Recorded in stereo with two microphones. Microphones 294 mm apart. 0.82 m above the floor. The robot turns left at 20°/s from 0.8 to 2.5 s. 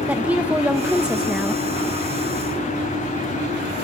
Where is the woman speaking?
5° right (ahead or behind), 0.8 m; by 1.6 s centre (ahead or behind), 0.8 m.